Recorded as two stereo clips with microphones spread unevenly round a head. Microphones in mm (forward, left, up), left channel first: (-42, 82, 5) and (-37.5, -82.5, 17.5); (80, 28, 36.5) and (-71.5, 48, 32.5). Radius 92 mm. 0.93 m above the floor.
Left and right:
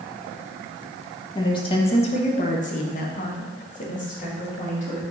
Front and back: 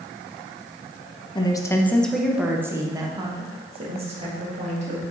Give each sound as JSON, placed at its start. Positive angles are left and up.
{"t": 1.4, "sound": "a woman speaking", "azimuth_deg": 40, "distance_m": 1.0}